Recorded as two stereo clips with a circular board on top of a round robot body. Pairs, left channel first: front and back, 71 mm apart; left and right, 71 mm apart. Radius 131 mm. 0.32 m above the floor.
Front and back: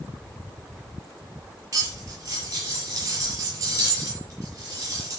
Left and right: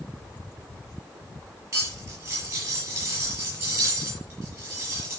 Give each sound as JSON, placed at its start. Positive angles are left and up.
{"t": 1.7, "sound": "cutlery clinking", "azimuth_deg": -135, "distance_m": 6.0}